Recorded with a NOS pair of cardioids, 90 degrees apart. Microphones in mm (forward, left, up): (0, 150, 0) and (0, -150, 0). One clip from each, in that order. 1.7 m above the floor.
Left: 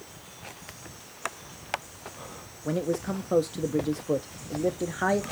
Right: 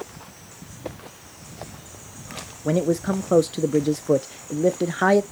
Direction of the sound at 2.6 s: 30° right.